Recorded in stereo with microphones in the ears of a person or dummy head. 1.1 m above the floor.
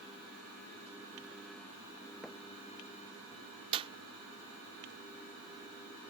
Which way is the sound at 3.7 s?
30° right (ahead or behind).